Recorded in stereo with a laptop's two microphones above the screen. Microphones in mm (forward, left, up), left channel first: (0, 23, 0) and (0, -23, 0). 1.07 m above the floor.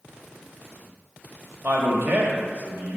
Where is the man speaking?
50° right (ahead or behind), 1.5 m.